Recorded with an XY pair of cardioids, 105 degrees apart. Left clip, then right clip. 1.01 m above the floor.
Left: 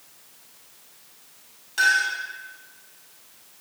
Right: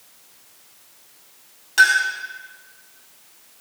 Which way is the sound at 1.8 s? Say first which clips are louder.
Right 5 dB; 55° right.